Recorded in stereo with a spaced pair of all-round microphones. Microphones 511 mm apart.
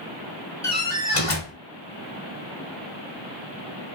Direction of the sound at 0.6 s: 90° left.